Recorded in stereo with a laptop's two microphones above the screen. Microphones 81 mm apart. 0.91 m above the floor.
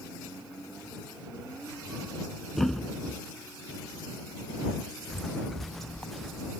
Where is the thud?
Centre (ahead or behind).